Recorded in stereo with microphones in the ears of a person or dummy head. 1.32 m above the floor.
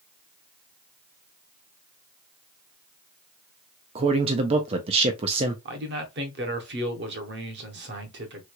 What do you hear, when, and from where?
4.0 s a man speaking: 30° right (ahead or behind), 0.5 m
5.7 s a man speaking: 55° right (ahead or behind), 0.7 m